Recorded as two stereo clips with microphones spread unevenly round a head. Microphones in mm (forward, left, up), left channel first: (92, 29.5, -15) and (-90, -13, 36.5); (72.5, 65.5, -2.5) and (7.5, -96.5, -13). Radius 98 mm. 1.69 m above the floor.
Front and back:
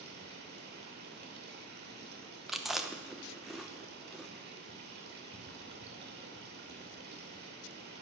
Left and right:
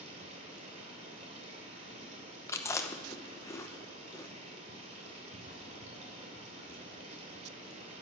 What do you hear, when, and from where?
0.0 s running water: 165° right, 2.5 m
2.5 s chewing: 130° left, 0.8 m